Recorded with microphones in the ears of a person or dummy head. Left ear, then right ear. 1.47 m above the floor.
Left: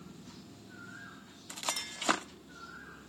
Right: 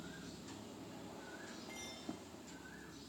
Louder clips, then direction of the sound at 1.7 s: Left 15 dB; 60° left (ahead or behind).